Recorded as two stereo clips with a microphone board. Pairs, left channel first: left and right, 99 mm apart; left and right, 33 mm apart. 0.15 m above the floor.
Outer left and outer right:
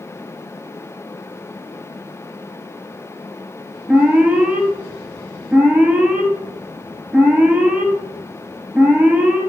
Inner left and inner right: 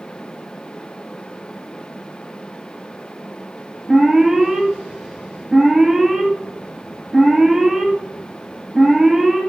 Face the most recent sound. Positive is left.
turn(degrees=-5)  # may be behind; listen again after turning